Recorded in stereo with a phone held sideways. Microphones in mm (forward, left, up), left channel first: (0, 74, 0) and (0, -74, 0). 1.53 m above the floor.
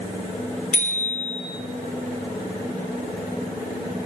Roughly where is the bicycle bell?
Left.